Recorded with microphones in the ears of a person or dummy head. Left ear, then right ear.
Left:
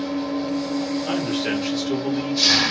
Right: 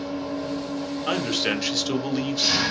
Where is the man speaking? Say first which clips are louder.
Right 4 dB; 35° right (ahead or behind), 0.8 m.